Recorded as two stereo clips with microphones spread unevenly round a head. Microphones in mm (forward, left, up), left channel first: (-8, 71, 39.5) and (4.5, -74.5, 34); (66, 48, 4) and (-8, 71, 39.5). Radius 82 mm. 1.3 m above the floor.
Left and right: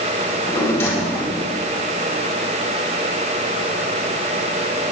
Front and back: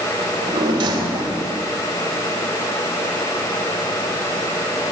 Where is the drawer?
165° left, 4 m.